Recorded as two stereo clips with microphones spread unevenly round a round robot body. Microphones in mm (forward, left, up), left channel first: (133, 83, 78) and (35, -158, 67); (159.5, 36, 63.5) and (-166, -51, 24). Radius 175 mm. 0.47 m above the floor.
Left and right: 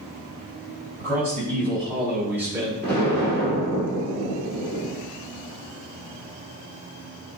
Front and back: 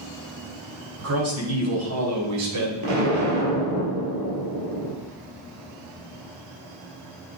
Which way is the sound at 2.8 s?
150° left.